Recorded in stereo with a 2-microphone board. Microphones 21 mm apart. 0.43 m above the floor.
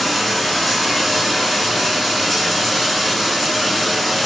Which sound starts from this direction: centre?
Running water, at 0.0 s.